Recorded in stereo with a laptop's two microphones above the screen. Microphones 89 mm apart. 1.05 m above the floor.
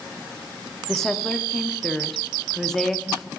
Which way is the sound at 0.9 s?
5° left (ahead or behind).